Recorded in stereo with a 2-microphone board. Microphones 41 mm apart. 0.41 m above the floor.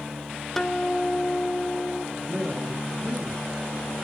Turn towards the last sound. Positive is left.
turn(degrees=-10)  # may be behind; listen again after turning